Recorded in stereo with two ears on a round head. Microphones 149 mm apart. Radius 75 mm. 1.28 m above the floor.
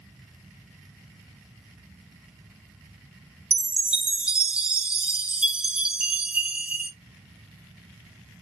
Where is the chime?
5° right (ahead or behind), 0.5 m.